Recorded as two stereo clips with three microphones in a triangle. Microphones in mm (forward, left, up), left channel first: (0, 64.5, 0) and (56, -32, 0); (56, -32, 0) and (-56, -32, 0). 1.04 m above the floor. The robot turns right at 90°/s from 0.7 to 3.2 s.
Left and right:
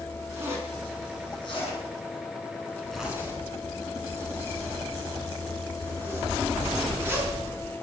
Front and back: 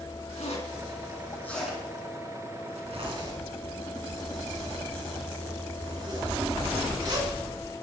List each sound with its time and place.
0.4 s a zipper: 5° left, 5 m; by 7.3 s 130° right, 5 m